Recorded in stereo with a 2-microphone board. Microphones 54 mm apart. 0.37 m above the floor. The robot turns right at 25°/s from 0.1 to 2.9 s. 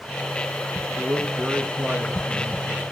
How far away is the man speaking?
About 5 m.